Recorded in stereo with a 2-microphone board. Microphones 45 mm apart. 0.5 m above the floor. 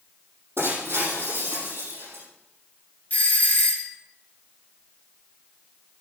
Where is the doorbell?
35° left (ahead or behind), 2.5 m.